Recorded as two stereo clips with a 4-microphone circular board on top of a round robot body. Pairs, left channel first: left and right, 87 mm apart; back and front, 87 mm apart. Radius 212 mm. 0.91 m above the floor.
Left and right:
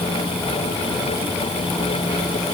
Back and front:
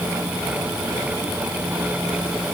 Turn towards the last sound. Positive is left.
No sound to turn to.